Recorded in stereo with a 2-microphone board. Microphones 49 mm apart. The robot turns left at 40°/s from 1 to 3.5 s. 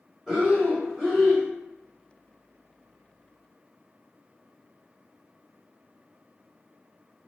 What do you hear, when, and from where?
0.3 s breathing: 5° right (ahead or behind), 1.7 m; by 1.5 s 20° right (ahead or behind), 1.7 m